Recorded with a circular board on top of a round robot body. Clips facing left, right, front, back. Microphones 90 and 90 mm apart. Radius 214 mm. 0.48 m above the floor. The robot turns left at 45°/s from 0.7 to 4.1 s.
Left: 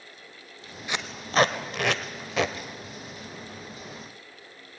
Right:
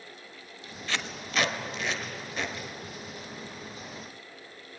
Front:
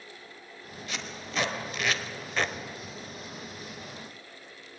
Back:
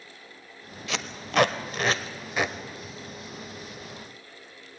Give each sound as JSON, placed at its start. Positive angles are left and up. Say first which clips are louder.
{"t": 0.9, "sound": "tape being pulled", "louder": "left 3 dB, back 7 dB", "azimuth_deg": 165, "distance_m": 0.9}